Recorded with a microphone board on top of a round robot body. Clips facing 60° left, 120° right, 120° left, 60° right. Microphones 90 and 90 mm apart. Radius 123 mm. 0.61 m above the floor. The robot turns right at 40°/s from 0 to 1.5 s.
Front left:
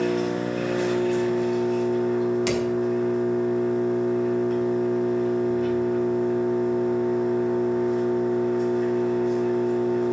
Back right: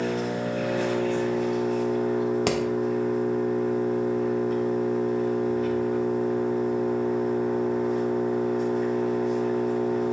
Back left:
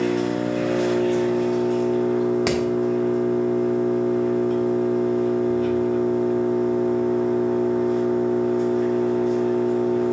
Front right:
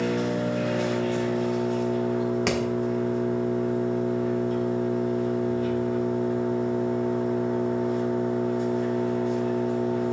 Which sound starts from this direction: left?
An engine running, at 0.0 s.